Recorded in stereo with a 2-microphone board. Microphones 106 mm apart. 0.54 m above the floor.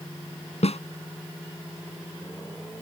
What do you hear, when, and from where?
0.6 s a snare drum: 80° left